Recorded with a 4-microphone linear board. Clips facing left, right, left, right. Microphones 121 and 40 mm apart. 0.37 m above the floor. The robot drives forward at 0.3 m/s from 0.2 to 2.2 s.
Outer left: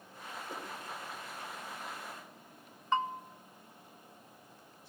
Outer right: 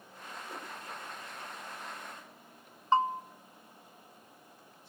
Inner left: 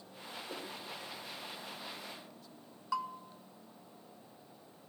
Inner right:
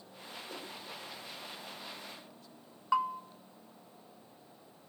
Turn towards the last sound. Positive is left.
turn(degrees=-35)  # may be behind; listen again after turning